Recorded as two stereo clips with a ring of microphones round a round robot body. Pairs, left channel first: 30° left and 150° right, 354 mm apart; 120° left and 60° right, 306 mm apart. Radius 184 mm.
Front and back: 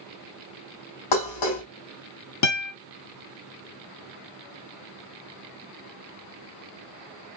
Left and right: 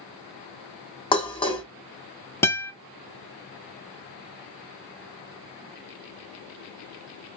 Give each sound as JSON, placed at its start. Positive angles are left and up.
{"t": 1.1, "sound": "dishes clattering", "azimuth_deg": 45, "distance_m": 1.4}
{"t": 2.4, "sound": "a guitar", "azimuth_deg": 40, "distance_m": 1.0}